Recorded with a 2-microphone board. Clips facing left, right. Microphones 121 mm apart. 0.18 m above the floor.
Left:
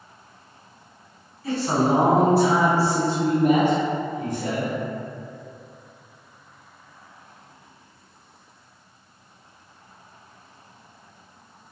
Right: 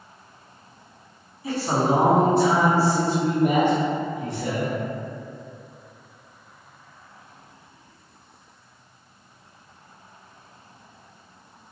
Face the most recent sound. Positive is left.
turn(degrees=45)  # may be behind; listen again after turning